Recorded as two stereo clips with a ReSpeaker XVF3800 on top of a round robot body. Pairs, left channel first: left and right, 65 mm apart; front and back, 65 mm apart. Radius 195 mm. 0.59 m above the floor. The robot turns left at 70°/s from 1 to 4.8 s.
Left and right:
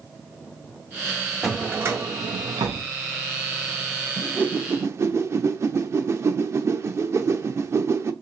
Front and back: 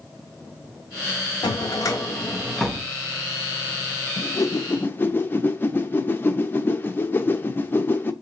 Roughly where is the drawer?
Ahead.